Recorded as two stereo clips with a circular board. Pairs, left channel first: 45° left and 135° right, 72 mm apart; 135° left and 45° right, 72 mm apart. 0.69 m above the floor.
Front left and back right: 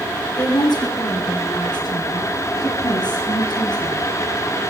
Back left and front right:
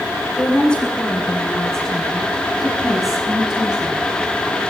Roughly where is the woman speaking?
Ahead left.